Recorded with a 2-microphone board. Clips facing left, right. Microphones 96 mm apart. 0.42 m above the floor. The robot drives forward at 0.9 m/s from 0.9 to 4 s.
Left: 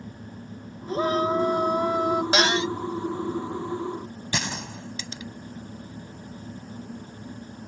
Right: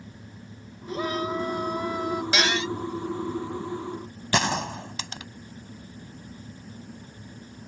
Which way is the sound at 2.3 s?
35° left (ahead or behind).